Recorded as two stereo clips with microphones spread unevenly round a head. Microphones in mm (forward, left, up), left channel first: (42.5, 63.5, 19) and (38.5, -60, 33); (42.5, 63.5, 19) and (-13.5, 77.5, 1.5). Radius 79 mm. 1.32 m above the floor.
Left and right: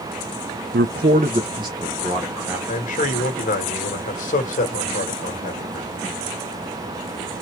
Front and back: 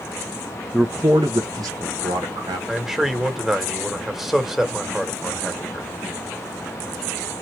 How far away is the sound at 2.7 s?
About 1.5 m.